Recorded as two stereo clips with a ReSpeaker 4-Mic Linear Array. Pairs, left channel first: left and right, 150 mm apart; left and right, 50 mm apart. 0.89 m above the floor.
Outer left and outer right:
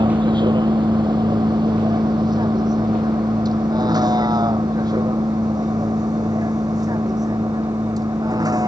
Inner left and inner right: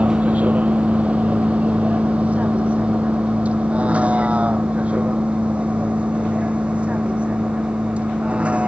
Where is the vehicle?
30° right (ahead or behind); by 8.7 s 25° right (ahead or behind).